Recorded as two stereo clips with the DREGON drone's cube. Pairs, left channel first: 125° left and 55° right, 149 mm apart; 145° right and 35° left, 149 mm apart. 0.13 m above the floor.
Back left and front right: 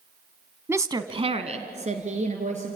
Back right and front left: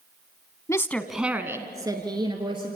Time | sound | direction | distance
0.7 | a woman speaking | 110° right | 1.1 m